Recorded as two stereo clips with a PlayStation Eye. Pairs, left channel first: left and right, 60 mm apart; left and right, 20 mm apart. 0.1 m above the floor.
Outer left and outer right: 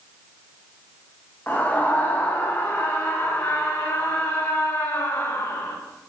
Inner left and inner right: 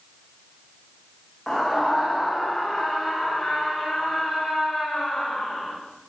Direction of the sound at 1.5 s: 30° left (ahead or behind).